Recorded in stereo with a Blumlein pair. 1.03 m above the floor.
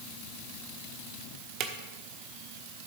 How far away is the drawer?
About 1.1 m.